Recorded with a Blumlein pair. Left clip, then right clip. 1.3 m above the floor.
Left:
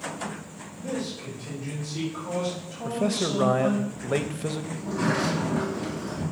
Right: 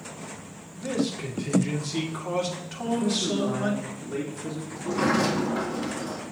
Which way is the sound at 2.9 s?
55° left.